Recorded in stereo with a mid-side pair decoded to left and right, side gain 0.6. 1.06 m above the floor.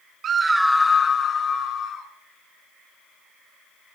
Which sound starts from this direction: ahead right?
A scream, at 0.2 s.